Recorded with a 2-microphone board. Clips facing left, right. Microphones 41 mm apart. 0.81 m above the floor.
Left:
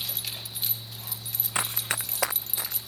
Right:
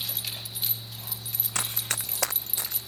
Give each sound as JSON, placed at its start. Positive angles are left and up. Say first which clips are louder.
{"t": 1.6, "sound": "running footsteps", "louder": "left 3 dB", "side_deg": 20}